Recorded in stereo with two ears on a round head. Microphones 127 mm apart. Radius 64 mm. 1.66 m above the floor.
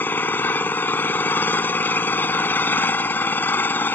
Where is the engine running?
15° left (ahead or behind).